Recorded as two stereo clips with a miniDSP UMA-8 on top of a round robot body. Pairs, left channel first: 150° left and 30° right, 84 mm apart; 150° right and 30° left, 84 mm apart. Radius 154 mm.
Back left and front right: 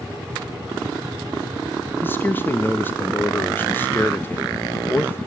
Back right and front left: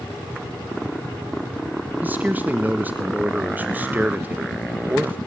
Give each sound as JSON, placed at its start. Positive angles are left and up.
{"t": 2.0, "sound": "a man speaking", "azimuth_deg": 95, "distance_m": 1.3}